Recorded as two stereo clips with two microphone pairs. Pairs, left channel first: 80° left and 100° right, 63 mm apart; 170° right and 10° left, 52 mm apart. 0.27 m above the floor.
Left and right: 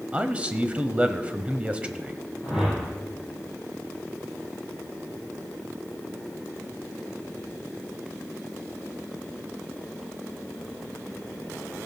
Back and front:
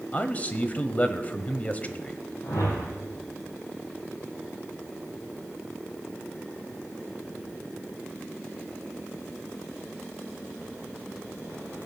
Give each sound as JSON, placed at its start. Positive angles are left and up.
{"t": 0.1, "sound": "a man speaking", "azimuth_deg": -150, "distance_m": 1.1}
{"t": 2.4, "sound": "a whoosh", "azimuth_deg": 180, "distance_m": 4.0}